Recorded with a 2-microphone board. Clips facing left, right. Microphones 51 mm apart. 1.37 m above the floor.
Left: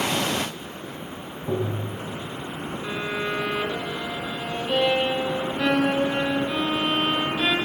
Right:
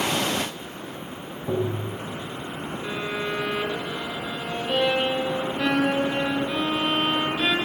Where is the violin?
5° left (ahead or behind), 2.5 m.